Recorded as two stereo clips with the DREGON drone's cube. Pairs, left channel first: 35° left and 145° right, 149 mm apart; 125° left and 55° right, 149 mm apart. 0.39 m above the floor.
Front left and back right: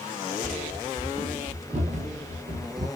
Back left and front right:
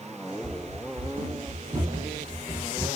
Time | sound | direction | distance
0.4 | running footsteps | 35° right | 0.9 m